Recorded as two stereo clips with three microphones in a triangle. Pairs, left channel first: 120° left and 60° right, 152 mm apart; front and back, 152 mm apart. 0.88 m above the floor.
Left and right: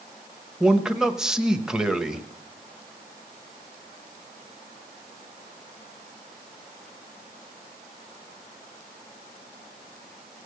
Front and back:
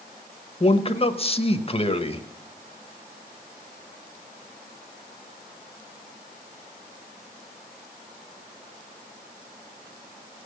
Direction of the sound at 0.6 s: 25° left.